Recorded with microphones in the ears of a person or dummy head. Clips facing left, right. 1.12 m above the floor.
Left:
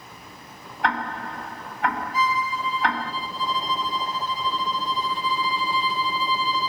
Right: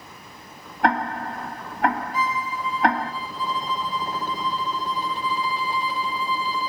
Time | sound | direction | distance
0.8 | ticking | 40° right (ahead or behind) | 1.7 m
2.1 | a violin | 45° right (ahead or behind) | 2.5 m